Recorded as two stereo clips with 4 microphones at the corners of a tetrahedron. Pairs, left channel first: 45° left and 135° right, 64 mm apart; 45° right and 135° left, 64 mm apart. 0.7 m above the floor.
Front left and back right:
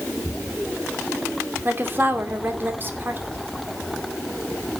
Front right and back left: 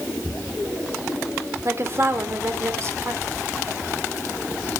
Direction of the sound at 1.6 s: 175° left.